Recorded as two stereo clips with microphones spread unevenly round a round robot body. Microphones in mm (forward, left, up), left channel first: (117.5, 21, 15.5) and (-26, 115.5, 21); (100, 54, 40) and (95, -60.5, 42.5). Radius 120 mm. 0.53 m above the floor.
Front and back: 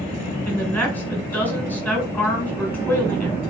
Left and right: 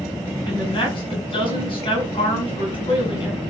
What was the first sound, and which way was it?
A woman speaking, 45° left.